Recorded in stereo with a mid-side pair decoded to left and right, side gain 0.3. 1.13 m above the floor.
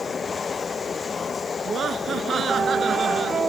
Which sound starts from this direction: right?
Laughter, at 1.6 s.